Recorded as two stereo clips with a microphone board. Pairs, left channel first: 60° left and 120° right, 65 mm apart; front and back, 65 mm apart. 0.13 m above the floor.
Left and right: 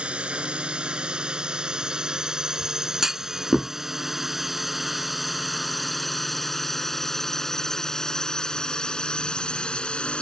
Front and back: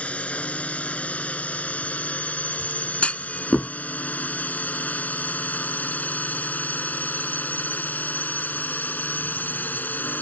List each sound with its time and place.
0.0 s a drone: 60° right; by 10.2 s 5° left
3.0 s a clunk: 45° right